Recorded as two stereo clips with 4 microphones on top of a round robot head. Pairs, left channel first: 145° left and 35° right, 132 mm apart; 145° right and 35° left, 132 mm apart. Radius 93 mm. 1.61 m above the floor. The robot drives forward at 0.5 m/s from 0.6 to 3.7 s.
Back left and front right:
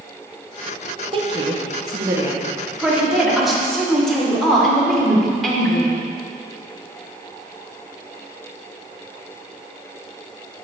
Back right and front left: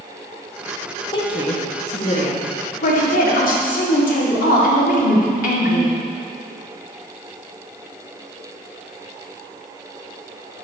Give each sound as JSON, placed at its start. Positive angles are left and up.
{"t": 1.1, "sound": "a woman speaking", "azimuth_deg": -85, "distance_m": 1.6}